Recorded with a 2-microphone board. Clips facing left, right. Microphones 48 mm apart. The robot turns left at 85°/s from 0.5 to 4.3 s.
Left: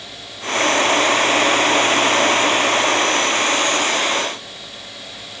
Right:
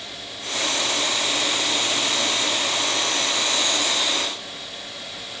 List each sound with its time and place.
Only background noise.